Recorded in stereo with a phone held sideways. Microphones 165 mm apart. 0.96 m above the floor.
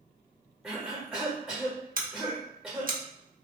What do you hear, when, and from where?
0.6 s a cough: centre (ahead or behind), 0.9 m
2.0 s scissors: 60° right (ahead or behind), 0.7 m